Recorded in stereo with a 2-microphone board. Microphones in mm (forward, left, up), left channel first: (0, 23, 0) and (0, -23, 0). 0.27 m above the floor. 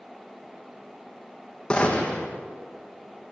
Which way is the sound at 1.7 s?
25° left (ahead or behind).